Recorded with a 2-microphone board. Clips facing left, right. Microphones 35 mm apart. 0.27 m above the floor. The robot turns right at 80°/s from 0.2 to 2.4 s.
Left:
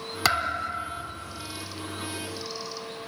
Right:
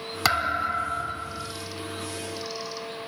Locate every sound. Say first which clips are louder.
0.2 s a thud: right 2 dB; centre (ahead or behind), 0.5 m; by 1.5 s 30° right (ahead or behind), 0.5 m